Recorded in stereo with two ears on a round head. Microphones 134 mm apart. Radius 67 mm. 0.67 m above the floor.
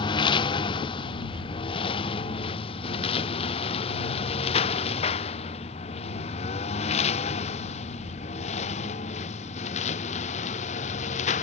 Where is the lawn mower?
30° left (ahead or behind); by 11.4 s 45° left (ahead or behind).